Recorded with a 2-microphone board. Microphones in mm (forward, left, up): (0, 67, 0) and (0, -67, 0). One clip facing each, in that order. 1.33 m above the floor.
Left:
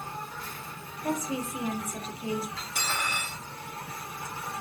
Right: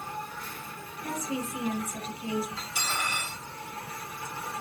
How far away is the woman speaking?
About 0.5 m.